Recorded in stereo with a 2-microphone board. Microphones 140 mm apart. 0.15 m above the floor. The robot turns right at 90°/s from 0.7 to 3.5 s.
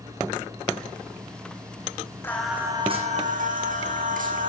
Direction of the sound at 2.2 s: 160° left.